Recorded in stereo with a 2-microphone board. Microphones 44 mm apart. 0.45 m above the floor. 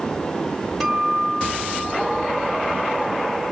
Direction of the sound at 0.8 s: 5° right (ahead or behind).